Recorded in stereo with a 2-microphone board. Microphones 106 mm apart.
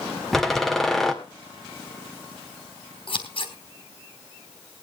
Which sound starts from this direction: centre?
A door slam, at 0.3 s.